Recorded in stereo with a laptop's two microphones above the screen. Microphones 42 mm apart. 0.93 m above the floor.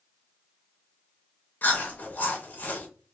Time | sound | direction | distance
1.6 | chewing | 45° left (ahead or behind) | 0.6 m